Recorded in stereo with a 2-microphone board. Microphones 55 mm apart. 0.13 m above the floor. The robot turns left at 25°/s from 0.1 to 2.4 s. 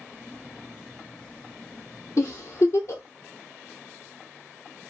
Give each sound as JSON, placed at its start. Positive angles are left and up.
{"t": 2.2, "sound": "a giggle", "side_deg": 65, "distance_m": 1.2}